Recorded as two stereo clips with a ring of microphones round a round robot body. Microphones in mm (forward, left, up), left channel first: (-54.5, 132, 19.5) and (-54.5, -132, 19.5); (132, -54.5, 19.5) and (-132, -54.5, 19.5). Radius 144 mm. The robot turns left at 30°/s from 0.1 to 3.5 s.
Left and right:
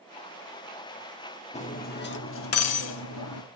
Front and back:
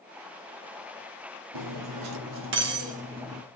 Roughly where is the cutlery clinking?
Behind left.